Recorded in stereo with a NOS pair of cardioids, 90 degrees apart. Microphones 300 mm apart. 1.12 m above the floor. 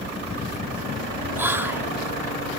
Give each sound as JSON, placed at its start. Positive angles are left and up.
{"t": 1.4, "sound": "whispering", "azimuth_deg": -5, "distance_m": 2.5}